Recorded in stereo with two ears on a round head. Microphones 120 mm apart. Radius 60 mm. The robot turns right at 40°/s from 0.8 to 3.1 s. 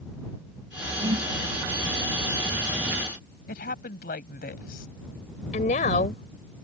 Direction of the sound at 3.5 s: 75° left (ahead or behind).